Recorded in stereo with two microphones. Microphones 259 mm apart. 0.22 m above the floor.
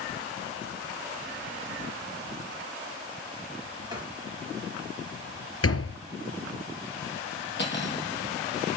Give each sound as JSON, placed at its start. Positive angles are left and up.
{"t": 3.9, "sound": "writing", "side_deg": -15, "distance_m": 6.0}
{"t": 5.6, "sound": "a door slam", "side_deg": 65, "distance_m": 3.5}
{"t": 7.6, "sound": "cutlery clinking", "side_deg": 45, "distance_m": 4.5}